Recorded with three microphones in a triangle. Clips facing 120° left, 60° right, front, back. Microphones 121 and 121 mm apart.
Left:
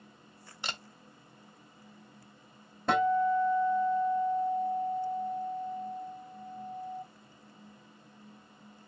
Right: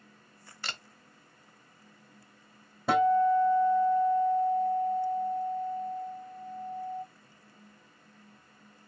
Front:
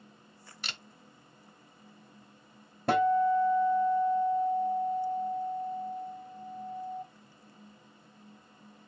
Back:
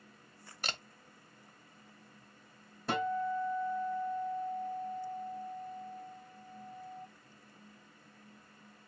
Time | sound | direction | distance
0.6 | a camera shutter | straight behind | 0.8 m
2.9 | a guitar | 25° left | 1.1 m